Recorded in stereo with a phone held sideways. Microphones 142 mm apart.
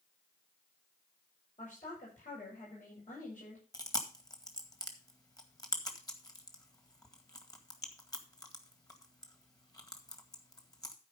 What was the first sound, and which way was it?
A woman speaking, 65° left (ahead or behind).